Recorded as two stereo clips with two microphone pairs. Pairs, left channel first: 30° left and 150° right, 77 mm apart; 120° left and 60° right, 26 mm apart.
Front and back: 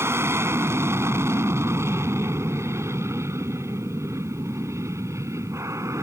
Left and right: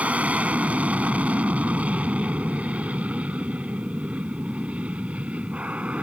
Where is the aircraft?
95° right; by 6.0 s 100° right.